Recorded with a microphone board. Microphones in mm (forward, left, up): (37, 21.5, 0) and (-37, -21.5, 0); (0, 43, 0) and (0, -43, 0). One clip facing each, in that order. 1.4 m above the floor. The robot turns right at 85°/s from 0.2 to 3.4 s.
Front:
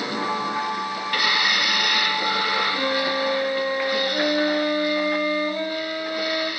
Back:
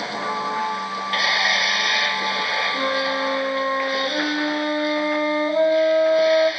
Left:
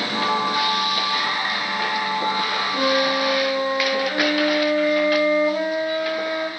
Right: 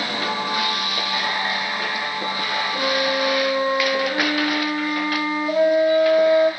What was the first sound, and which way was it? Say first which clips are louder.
A flute: back 1 dB, left 2 dB; 115° left.